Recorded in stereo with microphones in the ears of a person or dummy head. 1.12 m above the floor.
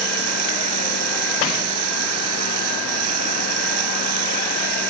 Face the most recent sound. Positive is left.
turn(degrees=-85)